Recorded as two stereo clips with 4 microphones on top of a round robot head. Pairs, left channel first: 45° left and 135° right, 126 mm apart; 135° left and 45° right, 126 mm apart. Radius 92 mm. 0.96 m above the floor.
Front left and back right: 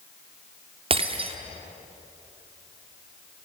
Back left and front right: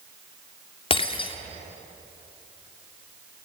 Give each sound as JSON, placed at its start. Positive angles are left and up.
{"t": 0.9, "sound": "breaking glass", "azimuth_deg": 180, "distance_m": 1.6}